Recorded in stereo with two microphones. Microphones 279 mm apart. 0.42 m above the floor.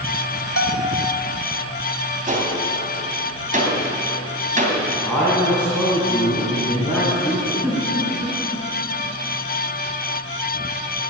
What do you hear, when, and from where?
0.6 s a bell: 55° left (ahead or behind), 1.3 m
2.3 s a gunshot: 25° right (ahead or behind), 2.5 m
5.0 s a man speaking: 5° left (ahead or behind), 3 m
7.6 s a giggle: 10° right (ahead or behind), 4.5 m